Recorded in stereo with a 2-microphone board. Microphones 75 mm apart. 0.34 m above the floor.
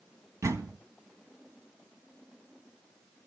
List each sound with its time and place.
0.4 s a door slam: 45° right (ahead or behind), 1.7 m